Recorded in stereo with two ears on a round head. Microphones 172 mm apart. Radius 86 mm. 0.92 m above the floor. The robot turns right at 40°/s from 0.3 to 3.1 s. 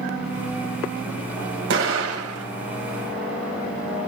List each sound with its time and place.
1.7 s an explosion: 110° right, 3.5 m; by 2.5 s 80° right, 3.5 m